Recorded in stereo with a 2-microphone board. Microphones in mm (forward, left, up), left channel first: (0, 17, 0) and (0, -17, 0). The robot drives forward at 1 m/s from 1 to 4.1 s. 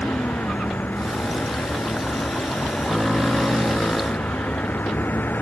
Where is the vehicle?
80° left; by 5.4 s 70° left (ahead or behind).